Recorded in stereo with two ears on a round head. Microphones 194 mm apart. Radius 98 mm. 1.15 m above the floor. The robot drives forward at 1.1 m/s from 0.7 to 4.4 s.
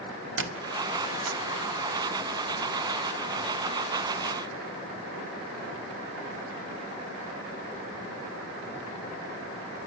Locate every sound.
0.4 s a squeak: 60° right (ahead or behind), 1.6 m; by 1.4 s 75° right (ahead or behind), 1.4 m